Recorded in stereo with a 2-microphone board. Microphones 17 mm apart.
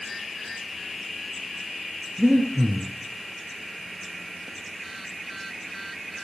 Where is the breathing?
65° right (ahead or behind), 4 m.